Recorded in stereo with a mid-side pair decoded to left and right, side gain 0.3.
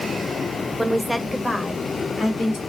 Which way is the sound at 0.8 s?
15° right.